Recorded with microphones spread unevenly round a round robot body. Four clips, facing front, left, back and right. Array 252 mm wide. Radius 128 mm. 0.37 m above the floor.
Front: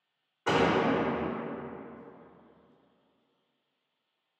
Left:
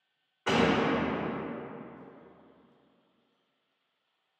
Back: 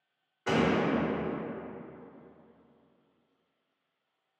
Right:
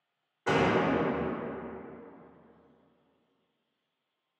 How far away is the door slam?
About 0.7 m.